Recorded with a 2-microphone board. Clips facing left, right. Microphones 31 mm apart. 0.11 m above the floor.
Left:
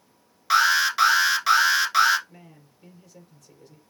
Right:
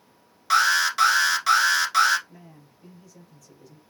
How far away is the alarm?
About 0.9 m.